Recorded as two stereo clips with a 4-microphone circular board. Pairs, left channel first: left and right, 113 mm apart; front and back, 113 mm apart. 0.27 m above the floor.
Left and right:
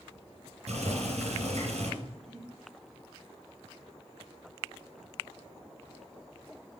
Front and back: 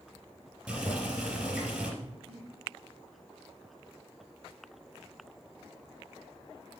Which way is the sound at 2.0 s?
175° left.